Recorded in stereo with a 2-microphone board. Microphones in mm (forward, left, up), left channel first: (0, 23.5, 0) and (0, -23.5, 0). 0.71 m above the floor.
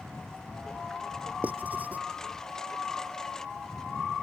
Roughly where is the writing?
Right.